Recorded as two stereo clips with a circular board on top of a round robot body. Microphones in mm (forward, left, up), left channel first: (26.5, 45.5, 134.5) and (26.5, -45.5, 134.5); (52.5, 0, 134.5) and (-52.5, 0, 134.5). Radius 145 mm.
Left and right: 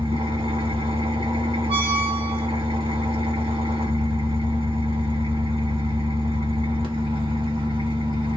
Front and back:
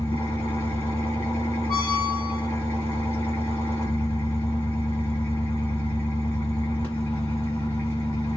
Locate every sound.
0.0 s an engine running: 70° right, 1.8 m
1.7 s a squeak: 85° right, 1.6 m